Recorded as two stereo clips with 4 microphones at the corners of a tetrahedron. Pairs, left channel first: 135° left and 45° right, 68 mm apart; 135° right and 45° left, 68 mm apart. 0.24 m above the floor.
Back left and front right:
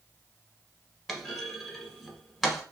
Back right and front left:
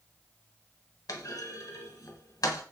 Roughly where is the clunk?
Behind right.